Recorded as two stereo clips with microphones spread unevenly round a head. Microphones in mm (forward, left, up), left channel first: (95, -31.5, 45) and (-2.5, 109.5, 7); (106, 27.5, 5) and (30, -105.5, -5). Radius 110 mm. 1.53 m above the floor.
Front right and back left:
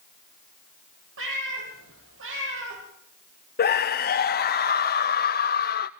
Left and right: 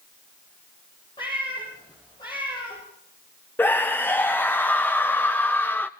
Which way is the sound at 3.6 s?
20° right.